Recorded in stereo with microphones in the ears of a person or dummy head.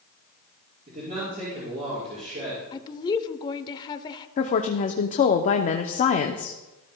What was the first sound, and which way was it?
A man speaking, 45° right (ahead or behind).